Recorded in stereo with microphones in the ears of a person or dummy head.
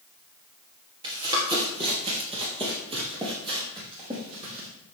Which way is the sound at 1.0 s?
20° right (ahead or behind).